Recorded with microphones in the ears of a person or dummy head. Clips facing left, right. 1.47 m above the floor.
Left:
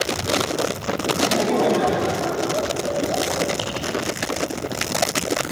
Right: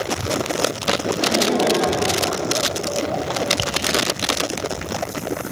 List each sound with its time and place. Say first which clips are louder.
1.2 s laughter: left 1 dB; 10° right (ahead or behind), 3.5 m; by 3.5 s 25° left (ahead or behind), 4.5 m
3.6 s tapping: right 1 dB; 30° right (ahead or behind), 2.5 m